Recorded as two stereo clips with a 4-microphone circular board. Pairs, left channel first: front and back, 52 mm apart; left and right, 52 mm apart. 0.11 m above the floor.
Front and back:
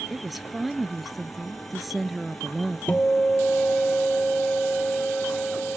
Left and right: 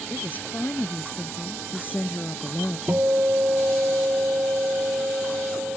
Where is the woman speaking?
95° left.